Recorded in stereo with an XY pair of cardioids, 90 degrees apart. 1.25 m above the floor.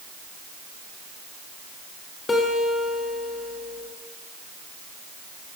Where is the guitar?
30° left, 1.3 m.